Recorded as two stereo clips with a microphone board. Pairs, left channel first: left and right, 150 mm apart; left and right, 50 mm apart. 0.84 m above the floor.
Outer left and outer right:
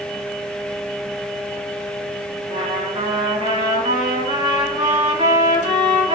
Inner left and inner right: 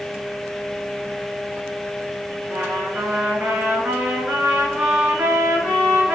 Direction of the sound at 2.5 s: 30° right (ahead or behind).